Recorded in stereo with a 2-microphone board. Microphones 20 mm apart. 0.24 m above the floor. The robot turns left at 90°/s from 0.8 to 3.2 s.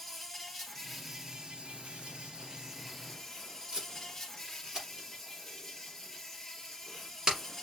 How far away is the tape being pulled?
About 4 m.